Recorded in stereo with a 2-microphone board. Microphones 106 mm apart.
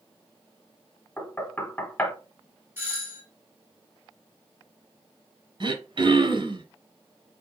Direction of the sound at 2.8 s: 20° right (ahead or behind).